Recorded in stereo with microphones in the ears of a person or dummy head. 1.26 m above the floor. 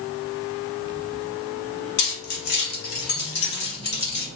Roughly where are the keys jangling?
Left.